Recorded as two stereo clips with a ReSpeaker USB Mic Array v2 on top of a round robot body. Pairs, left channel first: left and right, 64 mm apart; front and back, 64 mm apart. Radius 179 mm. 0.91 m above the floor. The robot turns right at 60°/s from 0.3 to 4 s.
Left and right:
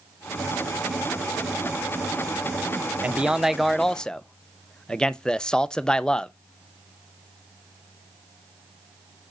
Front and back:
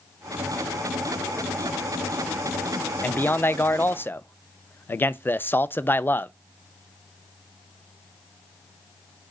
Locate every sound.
3.0 s a man speaking: 35° right, 0.6 m; by 6.3 s 25° left, 0.6 m